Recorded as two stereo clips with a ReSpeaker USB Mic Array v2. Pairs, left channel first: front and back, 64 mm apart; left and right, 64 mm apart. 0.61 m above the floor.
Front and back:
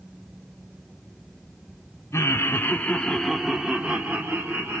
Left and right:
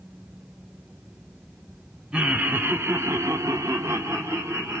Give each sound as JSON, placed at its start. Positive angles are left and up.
{"t": 2.1, "sound": "laughter", "azimuth_deg": -25, "distance_m": 1.2}